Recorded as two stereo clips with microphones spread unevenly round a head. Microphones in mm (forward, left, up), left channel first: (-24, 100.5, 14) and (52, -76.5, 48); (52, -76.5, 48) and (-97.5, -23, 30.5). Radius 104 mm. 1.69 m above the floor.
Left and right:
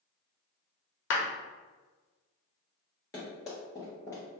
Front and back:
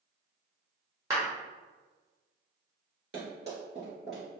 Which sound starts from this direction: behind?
Running footsteps, at 3.1 s.